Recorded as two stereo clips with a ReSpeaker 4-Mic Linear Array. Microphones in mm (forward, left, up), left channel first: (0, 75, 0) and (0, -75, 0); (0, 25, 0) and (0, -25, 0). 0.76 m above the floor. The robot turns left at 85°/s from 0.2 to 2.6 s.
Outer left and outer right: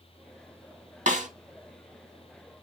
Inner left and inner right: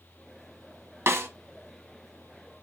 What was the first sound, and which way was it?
A snare drum, 60° right (ahead or behind).